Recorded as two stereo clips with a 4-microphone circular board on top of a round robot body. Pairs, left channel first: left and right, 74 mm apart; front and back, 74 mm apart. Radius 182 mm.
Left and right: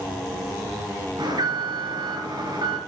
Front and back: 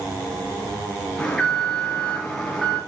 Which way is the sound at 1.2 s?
80° right.